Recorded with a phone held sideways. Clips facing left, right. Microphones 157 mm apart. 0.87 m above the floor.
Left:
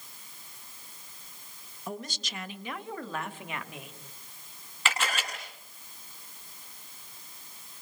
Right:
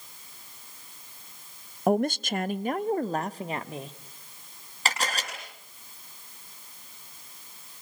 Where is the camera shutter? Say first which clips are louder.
Right 1 dB; 40° right (ahead or behind), 9 m.